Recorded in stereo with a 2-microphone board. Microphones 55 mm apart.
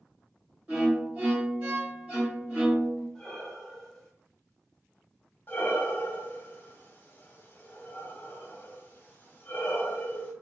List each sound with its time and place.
0.7 s a violin: 30° right (ahead or behind), 1.1 m
3.1 s breathing: 5° left (ahead or behind), 0.6 m
5.5 s breathing: 35° left (ahead or behind), 0.7 m